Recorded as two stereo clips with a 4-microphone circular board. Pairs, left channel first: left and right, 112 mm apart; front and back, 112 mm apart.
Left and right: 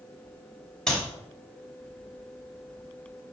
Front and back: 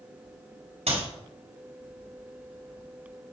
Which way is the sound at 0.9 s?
175° left.